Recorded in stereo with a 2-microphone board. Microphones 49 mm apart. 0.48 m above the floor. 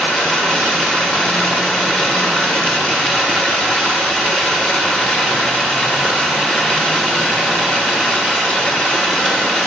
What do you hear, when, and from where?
0.0 s running water: 20° left (ahead or behind), 5 m